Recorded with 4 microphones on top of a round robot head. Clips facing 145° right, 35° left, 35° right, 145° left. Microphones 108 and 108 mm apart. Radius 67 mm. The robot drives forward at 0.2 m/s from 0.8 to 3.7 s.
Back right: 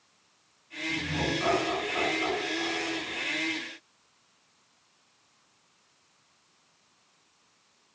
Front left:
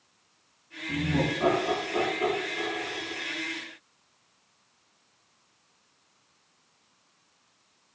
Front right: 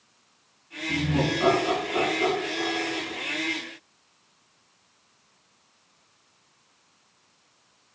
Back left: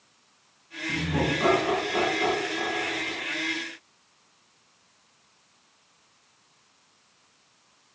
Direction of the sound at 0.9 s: 80° left.